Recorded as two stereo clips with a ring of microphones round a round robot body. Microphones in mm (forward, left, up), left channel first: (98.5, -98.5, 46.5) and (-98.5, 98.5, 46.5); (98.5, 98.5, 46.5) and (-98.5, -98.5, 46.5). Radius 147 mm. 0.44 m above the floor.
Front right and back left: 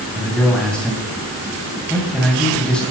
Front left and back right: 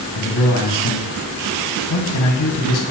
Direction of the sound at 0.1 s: 40° left.